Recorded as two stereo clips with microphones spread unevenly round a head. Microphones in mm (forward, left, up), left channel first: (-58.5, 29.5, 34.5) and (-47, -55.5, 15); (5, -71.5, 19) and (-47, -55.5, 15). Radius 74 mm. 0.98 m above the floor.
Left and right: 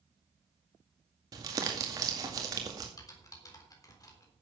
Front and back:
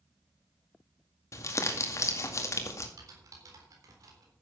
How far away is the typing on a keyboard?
About 3.5 m.